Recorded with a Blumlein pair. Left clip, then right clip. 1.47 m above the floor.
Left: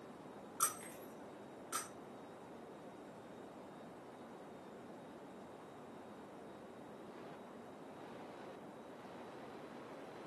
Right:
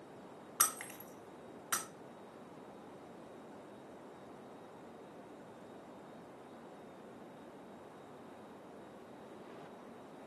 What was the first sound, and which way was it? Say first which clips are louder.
Breaking glass: right 4 dB; 55° right.